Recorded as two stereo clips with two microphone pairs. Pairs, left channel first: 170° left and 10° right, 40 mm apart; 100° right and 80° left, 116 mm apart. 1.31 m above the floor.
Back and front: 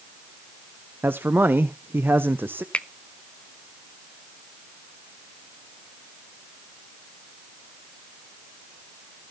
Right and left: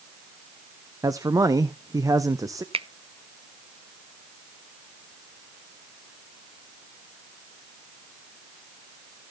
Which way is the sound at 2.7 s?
110° left.